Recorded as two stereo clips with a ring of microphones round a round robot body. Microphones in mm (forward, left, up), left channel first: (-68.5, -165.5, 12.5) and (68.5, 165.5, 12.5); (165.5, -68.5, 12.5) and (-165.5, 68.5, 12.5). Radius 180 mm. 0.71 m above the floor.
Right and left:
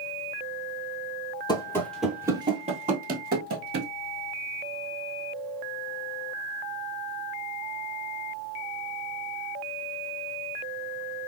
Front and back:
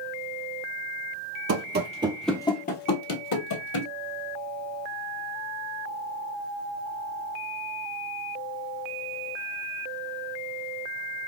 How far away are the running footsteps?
About 0.8 m.